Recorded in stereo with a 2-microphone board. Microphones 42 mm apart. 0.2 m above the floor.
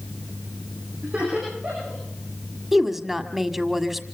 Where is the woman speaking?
5° right (ahead or behind), 1.5 m.